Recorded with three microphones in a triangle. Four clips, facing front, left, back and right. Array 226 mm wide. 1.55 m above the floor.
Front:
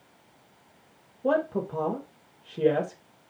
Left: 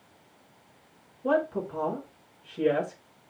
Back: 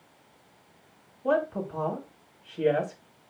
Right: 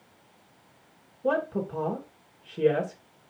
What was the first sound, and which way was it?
A woman speaking, 25° right.